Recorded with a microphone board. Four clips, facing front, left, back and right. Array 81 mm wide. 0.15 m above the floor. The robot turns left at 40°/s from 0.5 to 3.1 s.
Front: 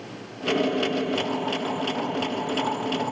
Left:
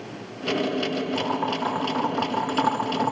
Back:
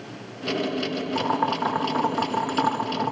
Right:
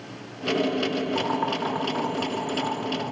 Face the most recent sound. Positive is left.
turn(degrees=120)